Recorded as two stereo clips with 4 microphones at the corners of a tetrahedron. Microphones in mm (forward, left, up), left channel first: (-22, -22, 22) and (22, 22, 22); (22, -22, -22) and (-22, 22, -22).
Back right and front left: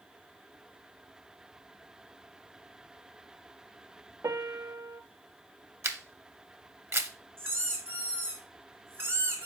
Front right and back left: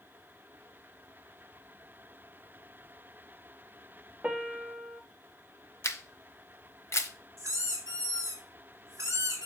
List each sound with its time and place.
4.2 s a piano: 65° left, 0.7 m
5.8 s a camera shutter: straight ahead, 1.0 m
7.4 s a squeak: 95° left, 4 m